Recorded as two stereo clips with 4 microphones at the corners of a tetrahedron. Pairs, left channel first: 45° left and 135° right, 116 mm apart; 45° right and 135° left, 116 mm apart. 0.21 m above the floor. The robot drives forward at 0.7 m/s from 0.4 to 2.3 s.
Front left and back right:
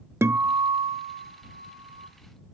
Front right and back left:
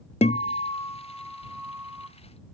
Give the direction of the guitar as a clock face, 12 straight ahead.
2 o'clock.